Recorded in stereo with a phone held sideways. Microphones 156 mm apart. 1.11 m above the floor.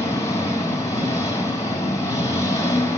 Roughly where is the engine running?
Left.